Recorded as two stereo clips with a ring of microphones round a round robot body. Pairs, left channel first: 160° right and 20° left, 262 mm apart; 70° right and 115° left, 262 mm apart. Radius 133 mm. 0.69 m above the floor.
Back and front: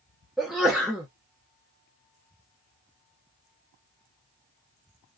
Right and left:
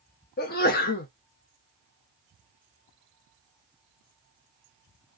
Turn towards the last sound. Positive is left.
turn(degrees=-65)